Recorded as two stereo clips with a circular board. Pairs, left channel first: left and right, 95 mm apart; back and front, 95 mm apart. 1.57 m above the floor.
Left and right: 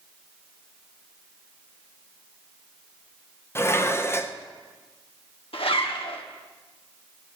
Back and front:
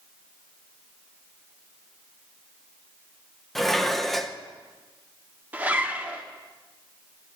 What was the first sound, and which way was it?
Dishes clattering, 95° left.